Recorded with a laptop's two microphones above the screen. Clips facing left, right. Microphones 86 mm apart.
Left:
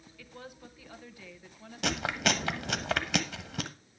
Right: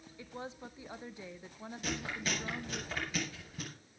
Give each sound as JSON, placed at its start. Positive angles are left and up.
{"t": 0.2, "sound": "a woman speaking", "side_deg": -25, "distance_m": 0.9}
{"t": 1.8, "sound": "chewing", "side_deg": 75, "distance_m": 1.0}